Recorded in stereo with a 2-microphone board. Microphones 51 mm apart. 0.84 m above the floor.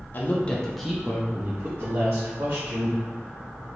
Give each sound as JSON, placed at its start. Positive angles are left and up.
{"t": 0.1, "sound": "a woman speaking", "side_deg": 35, "distance_m": 0.7}